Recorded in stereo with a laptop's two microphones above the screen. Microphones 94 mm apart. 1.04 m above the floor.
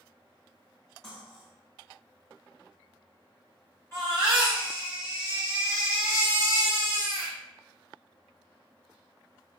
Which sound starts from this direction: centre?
Cutlery clinking, at 1.0 s.